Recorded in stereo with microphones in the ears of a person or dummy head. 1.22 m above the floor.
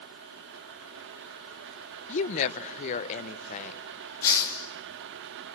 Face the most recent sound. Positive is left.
turn(degrees=15)  # may be behind; listen again after turning